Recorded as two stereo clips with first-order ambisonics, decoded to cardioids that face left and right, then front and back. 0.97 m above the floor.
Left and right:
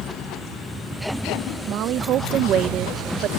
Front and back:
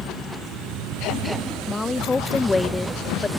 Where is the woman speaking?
75° right.